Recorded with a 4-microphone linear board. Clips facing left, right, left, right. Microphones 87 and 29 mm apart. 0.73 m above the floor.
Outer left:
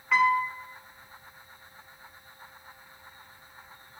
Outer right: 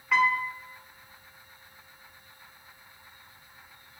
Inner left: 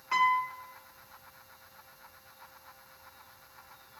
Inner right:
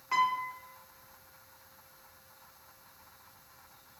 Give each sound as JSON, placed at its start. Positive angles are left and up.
{"t": 0.1, "sound": "a piano", "side_deg": 0, "distance_m": 1.2}